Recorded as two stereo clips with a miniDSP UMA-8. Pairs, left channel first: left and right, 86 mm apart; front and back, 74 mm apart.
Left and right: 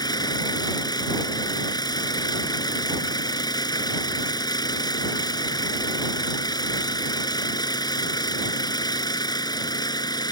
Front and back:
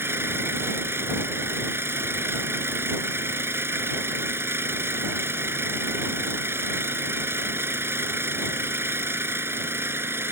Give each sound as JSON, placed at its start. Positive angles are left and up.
{"t": 0.0, "sound": "an engine running", "azimuth_deg": 125}